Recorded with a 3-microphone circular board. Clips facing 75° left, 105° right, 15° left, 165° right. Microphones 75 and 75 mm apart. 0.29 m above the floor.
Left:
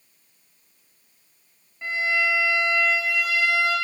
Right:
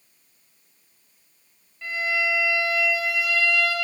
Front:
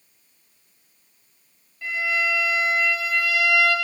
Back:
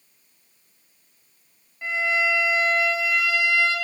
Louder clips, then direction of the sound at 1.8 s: Left 2 dB, back 1 dB; 135° left.